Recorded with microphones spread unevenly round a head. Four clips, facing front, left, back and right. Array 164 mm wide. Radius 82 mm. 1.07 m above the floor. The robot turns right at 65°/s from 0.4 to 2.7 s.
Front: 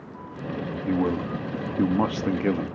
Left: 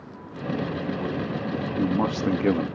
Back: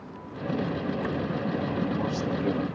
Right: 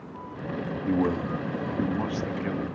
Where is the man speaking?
45° right, 1.4 m; by 2.7 s 75° left, 1.4 m.